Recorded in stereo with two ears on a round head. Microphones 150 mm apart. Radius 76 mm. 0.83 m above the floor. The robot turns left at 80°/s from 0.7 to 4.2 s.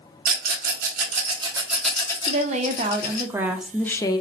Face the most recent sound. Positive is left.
turn(degrees=140)